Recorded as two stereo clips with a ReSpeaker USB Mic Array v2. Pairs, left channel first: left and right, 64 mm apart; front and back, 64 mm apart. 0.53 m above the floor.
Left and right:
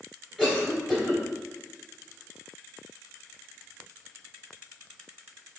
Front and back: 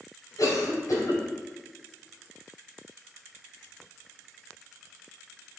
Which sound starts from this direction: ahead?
A cough, at 0.4 s.